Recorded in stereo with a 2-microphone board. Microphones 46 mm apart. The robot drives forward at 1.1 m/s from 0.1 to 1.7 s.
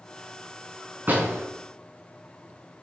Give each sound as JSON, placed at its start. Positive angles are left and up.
{"t": 1.1, "sound": "a door slam", "side_deg": -45, "distance_m": 4.5}